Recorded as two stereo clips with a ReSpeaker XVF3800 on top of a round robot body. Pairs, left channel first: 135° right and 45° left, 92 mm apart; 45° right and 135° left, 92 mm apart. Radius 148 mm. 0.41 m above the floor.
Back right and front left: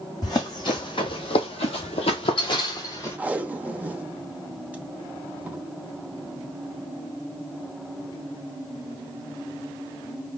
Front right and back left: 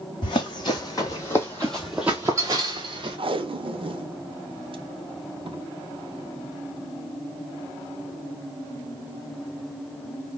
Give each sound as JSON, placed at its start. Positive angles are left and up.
{"t": 0.2, "sound": "running footsteps", "azimuth_deg": -85, "distance_m": 1.2}
{"t": 3.2, "sound": "tape being pulled", "azimuth_deg": 120, "distance_m": 0.8}